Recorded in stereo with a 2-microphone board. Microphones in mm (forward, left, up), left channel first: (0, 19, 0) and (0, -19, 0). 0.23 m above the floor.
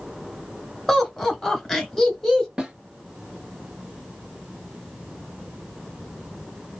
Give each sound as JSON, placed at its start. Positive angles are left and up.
{"t": 0.9, "sound": "laughter", "side_deg": 5, "distance_m": 1.7}
{"t": 2.6, "sound": "a snare drum", "side_deg": -20, "distance_m": 1.4}